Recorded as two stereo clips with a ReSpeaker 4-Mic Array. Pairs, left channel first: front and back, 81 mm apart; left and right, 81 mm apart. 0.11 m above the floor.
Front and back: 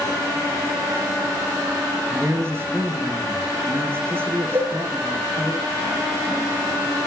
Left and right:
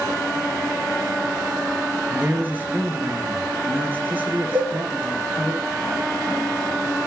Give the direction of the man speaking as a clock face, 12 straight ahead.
5 o'clock.